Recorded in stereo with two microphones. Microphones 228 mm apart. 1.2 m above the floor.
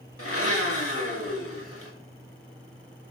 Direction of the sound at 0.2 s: 75° left (ahead or behind).